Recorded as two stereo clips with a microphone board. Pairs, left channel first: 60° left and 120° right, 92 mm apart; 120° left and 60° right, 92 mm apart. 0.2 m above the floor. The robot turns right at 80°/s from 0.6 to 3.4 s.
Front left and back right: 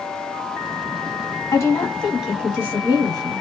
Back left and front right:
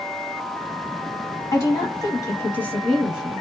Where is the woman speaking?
85° left, 1.2 m; by 3.4 s 125° right, 1.2 m.